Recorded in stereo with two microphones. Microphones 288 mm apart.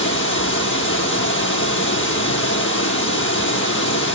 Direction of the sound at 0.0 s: 40° left (ahead or behind).